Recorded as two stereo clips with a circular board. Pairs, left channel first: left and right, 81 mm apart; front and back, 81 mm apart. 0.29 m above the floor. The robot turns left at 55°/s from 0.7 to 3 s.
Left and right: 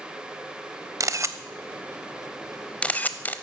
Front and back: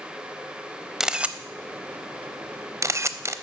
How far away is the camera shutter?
About 0.6 m.